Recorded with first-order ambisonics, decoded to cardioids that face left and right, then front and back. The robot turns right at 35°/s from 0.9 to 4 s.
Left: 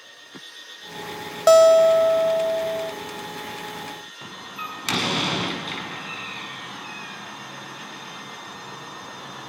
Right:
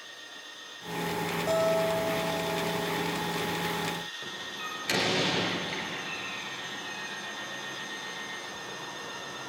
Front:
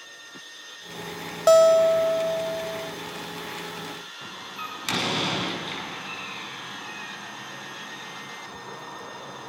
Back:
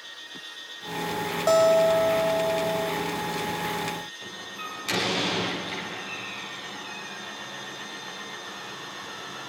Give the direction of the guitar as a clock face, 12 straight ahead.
10 o'clock.